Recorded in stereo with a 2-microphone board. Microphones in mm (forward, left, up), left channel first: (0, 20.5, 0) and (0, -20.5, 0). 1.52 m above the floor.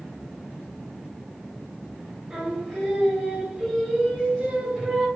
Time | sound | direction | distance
2.3 | singing | 20° right (ahead or behind) | 1.8 m